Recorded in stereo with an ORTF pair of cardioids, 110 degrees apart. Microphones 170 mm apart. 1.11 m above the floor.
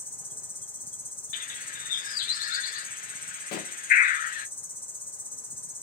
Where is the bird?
60° left, 0.6 m.